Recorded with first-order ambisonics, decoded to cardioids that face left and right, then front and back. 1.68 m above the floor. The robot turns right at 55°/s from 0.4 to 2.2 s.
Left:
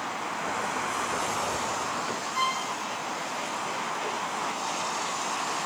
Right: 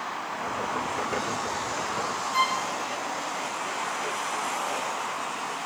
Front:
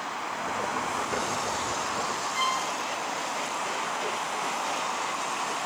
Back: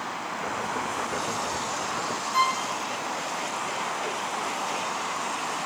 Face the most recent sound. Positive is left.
turn(degrees=-140)